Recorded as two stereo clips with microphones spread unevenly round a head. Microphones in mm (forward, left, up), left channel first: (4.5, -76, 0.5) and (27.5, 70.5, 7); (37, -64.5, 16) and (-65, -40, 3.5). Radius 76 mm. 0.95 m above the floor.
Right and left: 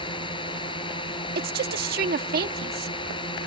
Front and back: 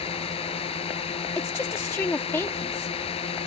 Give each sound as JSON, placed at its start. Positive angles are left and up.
{"t": 0.0, "sound": "a drone", "azimuth_deg": -40}
{"t": 1.4, "sound": "a woman speaking", "azimuth_deg": 60}